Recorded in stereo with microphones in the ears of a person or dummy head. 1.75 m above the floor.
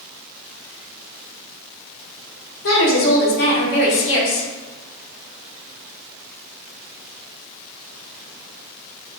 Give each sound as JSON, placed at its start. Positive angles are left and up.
{"t": 2.6, "sound": "a woman speaking", "side_deg": 60, "distance_m": 1.0}